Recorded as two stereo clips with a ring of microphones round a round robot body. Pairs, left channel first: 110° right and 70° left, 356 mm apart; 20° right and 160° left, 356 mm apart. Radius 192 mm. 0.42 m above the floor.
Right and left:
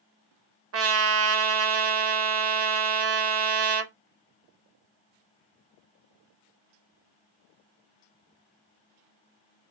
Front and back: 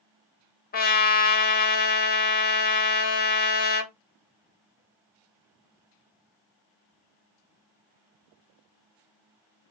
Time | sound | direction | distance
0.7 | a trumpet | 35° left | 0.8 m